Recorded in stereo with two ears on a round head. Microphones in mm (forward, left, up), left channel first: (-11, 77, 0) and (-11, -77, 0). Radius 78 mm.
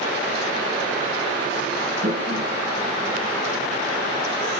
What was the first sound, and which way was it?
A toilet flushing, 80° right.